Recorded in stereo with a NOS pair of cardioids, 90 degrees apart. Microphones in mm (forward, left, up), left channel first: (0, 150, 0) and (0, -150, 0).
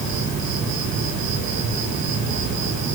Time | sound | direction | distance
0.0 | an insect | 70° right | 4.5 m